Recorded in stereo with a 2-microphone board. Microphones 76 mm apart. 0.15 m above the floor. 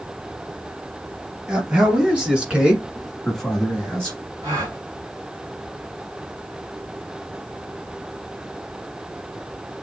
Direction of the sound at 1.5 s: 15° right (ahead or behind).